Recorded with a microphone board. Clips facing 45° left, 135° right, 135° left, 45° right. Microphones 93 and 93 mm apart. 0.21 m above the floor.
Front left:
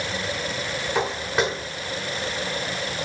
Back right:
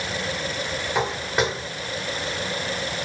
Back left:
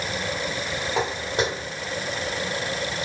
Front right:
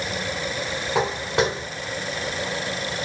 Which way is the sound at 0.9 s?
45° right.